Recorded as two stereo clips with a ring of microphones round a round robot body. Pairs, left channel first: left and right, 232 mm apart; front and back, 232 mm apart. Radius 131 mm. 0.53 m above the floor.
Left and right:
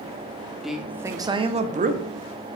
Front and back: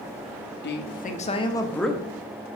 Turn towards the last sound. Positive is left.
turn(degrees=-95)